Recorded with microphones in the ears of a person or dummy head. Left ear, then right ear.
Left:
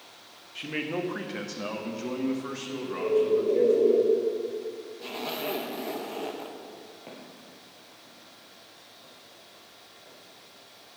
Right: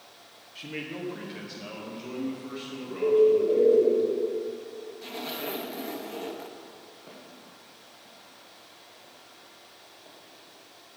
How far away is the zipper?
About 0.7 m.